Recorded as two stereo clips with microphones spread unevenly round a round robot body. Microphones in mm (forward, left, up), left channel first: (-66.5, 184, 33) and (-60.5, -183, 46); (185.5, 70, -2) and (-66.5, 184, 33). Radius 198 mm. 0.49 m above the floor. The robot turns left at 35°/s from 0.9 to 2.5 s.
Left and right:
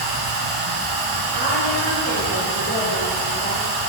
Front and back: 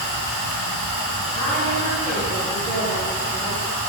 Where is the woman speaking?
160° left, 1.5 m; by 3.6 s 115° left, 1.5 m.